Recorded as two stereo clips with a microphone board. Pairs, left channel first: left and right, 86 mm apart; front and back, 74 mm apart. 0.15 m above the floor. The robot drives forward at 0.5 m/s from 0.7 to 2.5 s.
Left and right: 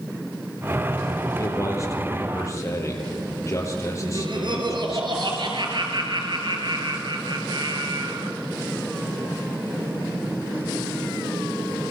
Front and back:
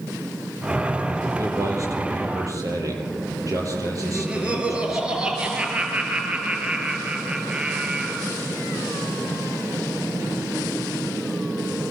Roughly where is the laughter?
Right.